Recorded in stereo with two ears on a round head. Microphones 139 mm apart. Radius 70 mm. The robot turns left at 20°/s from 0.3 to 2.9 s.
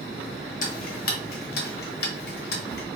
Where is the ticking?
55° left (ahead or behind), 0.9 m; by 2.9 s 70° left (ahead or behind), 0.9 m.